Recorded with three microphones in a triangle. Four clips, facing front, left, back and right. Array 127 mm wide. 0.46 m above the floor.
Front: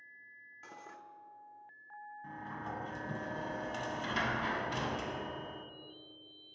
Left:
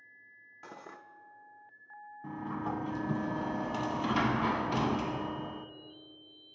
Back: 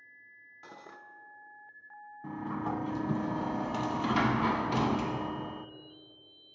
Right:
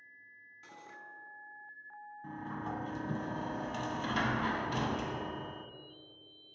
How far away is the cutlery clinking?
About 0.6 m.